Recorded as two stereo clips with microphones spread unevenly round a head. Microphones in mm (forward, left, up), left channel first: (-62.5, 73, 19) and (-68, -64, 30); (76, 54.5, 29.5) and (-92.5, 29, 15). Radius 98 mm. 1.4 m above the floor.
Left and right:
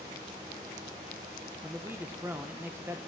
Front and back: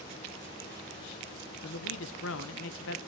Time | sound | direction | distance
1.6 | a man speaking | 10° right | 0.9 m